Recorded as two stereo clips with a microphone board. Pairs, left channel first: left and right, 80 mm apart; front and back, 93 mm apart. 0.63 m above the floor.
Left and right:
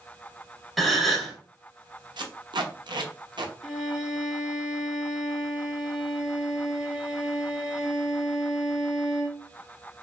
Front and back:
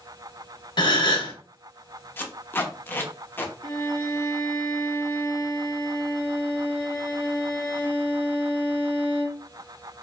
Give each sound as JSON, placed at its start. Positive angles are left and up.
{"t": 0.8, "sound": "a gasp", "azimuth_deg": 0, "distance_m": 1.0}
{"t": 2.2, "sound": "tape being pulled", "azimuth_deg": -65, "distance_m": 0.6}
{"t": 3.6, "sound": "a violin", "azimuth_deg": -10, "distance_m": 1.3}